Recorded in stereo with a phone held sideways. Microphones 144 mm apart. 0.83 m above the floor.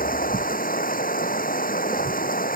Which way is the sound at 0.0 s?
75° left (ahead or behind).